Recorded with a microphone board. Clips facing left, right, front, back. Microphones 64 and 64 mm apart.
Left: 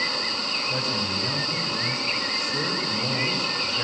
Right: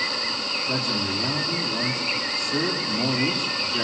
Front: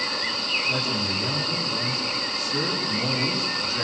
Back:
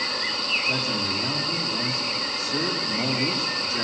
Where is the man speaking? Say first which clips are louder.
Right 3 dB, even; 120° right, 9.5 m.